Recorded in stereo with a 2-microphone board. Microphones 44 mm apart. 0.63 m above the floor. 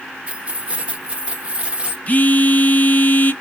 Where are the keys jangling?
25° right (ahead or behind), 1.0 m.